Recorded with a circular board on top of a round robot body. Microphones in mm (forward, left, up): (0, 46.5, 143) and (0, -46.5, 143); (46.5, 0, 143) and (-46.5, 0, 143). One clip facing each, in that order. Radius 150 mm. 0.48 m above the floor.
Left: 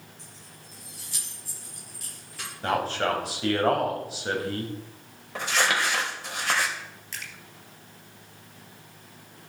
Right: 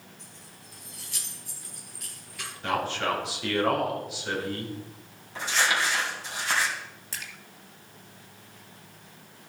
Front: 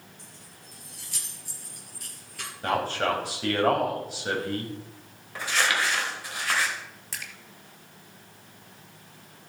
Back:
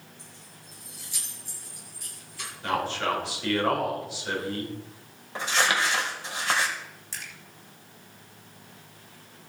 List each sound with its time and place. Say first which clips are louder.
0.2 s keys jangling: left 1 dB, even; 35° left, 8.5 m
2.6 s a man speaking: left 2 dB, front 1 dB; 45° left, 4.5 m
5.3 s crumpling: left 1 dB, back 1 dB; 115° left, 3.5 m
7.1 s a splash: even, front 1 dB; 35° right, 2.5 m